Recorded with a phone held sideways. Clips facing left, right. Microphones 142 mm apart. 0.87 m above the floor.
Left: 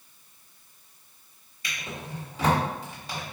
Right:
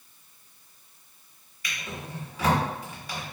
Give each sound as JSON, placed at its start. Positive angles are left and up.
{"t": 1.6, "sound": "a drawer", "side_deg": 25, "distance_m": 1.1}